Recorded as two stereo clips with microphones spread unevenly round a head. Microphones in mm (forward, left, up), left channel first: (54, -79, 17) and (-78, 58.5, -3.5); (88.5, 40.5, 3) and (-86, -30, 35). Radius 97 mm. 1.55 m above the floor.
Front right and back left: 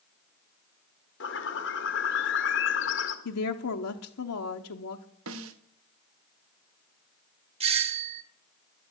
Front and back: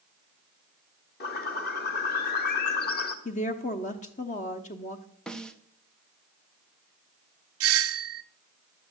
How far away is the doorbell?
About 0.7 m.